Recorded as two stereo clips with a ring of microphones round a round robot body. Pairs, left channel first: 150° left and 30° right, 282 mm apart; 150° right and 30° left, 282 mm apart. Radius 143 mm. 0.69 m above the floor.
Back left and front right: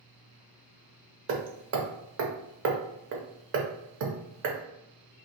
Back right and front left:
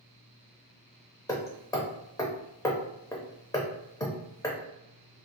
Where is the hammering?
75° right, 0.5 m.